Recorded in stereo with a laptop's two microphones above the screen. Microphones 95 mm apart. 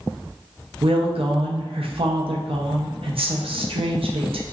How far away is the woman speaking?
About 0.7 m.